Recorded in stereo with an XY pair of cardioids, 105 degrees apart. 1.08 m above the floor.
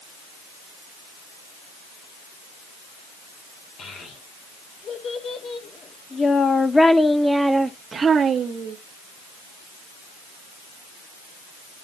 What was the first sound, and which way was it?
A child speaking, 65° left.